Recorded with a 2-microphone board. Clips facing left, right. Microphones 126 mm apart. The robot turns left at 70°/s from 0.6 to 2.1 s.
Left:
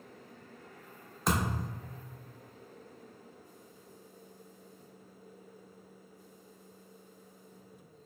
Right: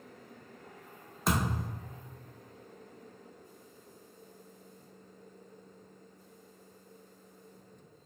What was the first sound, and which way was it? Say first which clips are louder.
A thud: even; straight ahead.